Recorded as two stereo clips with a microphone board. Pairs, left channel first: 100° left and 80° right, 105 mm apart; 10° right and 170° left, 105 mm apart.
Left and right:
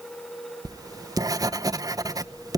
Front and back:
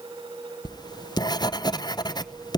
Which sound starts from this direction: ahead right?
Writing, at 0.7 s.